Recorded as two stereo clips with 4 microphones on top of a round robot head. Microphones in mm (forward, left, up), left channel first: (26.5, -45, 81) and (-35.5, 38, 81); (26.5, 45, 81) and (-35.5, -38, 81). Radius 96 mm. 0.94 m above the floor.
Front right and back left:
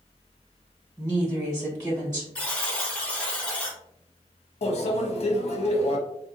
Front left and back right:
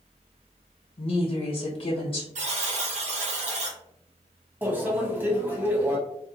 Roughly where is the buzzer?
Behind right.